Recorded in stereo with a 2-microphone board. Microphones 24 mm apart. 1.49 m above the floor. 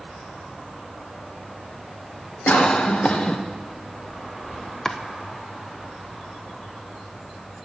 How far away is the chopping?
About 0.6 m.